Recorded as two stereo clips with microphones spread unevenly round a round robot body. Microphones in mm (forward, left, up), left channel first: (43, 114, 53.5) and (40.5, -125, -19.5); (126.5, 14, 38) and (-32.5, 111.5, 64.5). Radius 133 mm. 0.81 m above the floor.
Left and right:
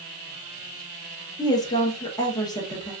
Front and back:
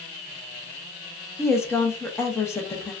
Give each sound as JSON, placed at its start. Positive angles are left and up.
{"t": 1.4, "sound": "a woman speaking", "azimuth_deg": -5, "distance_m": 0.8}